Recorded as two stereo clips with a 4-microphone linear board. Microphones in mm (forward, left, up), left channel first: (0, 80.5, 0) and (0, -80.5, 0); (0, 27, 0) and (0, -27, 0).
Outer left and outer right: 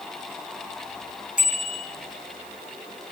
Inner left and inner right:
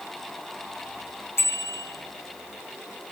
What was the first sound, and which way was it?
A bicycle bell, 50° left (ahead or behind).